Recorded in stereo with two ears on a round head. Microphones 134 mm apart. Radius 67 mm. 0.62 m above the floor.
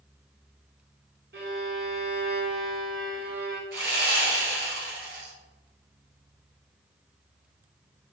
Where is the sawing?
75° right (ahead or behind), 1.9 m.